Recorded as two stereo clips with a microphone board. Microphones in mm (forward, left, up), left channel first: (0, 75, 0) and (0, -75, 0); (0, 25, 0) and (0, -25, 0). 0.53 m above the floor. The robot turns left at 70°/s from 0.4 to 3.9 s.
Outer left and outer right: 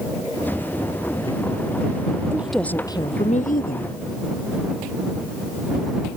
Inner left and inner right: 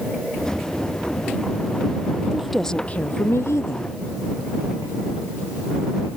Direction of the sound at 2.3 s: 165° right.